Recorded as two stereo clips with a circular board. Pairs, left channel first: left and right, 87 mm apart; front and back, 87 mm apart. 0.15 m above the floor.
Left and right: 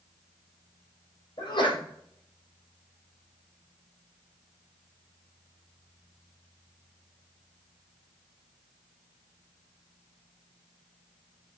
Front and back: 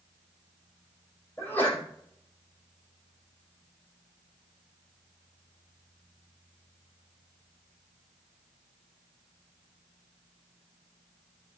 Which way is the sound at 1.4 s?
70° left.